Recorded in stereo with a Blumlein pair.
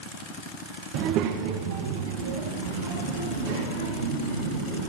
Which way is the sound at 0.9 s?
35° right.